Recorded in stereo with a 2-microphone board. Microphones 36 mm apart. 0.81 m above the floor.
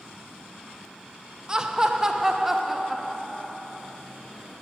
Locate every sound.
1.5 s laughter: 20° right (ahead or behind), 0.8 m; by 4.0 s centre (ahead or behind), 1.7 m